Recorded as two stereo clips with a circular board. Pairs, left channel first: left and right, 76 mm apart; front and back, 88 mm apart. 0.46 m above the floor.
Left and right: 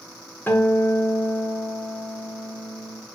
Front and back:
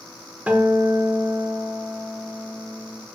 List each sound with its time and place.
0.5 s a guitar: 120° left, 1.1 m